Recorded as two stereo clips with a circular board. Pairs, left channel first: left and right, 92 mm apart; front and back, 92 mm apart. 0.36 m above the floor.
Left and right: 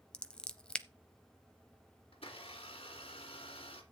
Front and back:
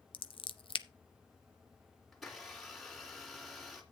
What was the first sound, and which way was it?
Scissors, 10° left.